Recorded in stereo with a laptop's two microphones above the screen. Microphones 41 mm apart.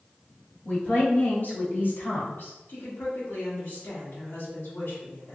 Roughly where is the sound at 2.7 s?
Left.